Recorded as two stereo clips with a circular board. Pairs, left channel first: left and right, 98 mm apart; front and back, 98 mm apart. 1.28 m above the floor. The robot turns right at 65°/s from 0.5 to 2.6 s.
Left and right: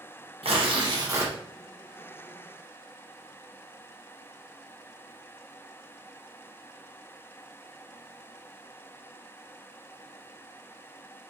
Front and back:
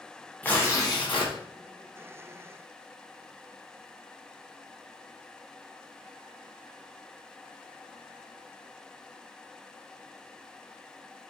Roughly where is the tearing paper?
Right.